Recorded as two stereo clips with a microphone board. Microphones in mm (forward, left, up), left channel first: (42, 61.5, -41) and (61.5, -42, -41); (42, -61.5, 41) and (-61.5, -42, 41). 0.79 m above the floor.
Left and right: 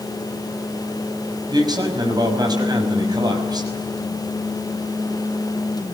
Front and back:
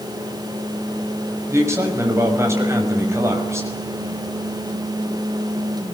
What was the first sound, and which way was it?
A man speaking, 125° right.